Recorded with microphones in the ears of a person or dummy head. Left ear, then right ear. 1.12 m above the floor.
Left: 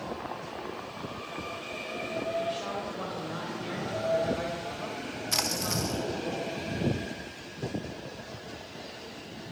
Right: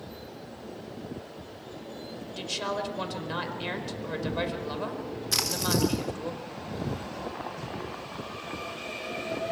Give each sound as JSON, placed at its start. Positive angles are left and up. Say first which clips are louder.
{"t": 2.4, "sound": "a woman speaking", "louder": "even", "side_deg": -55, "distance_m": 4.0}
{"t": 5.3, "sound": "a splash", "louder": "right 2 dB", "side_deg": 0, "distance_m": 1.8}